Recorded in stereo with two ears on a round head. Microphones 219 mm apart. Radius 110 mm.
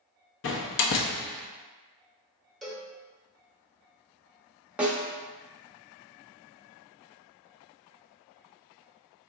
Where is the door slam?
50° left (ahead or behind), 0.6 m.